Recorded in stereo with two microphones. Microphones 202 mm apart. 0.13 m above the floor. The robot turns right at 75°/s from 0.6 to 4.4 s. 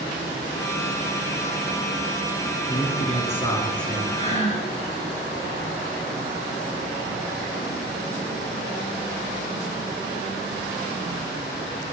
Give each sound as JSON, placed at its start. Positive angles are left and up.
{"t": 2.7, "sound": "a man speaking", "azimuth_deg": 90, "distance_m": 1.3}
{"t": 4.2, "sound": "breathing", "side_deg": 30, "distance_m": 1.2}